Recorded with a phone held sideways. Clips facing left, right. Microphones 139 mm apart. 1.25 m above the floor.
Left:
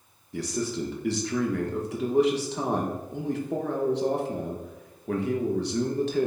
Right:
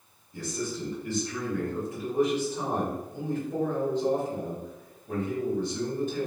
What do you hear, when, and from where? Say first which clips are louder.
0.3 s a man speaking: left 4 dB; 80° left, 0.9 m